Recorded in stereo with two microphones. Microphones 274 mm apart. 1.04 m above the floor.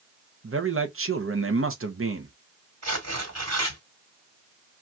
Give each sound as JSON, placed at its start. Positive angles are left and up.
{"t": 0.4, "sound": "a man speaking", "side_deg": -50, "distance_m": 0.7}
{"t": 2.8, "sound": "tearing paper", "side_deg": -75, "distance_m": 1.7}